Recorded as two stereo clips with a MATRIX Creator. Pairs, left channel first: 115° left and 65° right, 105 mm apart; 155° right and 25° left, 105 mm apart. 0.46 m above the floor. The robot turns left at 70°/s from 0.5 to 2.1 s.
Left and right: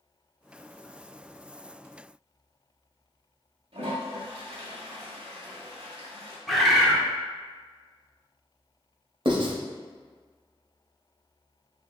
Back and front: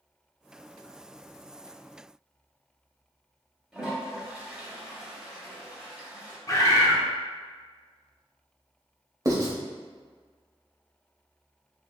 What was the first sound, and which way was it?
A toilet flushing, 60° right.